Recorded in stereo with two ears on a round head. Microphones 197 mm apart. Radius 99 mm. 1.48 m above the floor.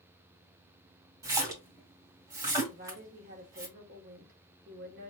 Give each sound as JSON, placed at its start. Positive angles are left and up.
{"t": 1.2, "sound": "a splash", "side_deg": -15, "distance_m": 2.0}
{"t": 2.7, "sound": "a woman speaking", "side_deg": -40, "distance_m": 1.4}